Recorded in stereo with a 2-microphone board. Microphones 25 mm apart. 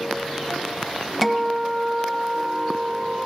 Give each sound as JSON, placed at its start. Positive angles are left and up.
{"t": 1.2, "sound": "a guitar", "side_deg": 0, "distance_m": 1.0}